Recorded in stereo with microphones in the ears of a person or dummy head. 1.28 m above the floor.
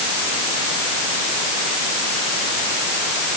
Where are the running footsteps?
No running footsteps in this recording.